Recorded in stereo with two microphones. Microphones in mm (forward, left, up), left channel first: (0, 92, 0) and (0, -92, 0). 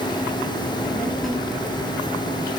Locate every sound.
0.6 s a child speaking: 10° left (ahead or behind), 3 m; by 2.5 s 20° right (ahead or behind), 3 m